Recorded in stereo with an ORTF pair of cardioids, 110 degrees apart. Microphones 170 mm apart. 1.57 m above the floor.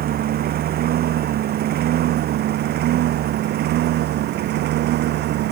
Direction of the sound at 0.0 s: 60° right.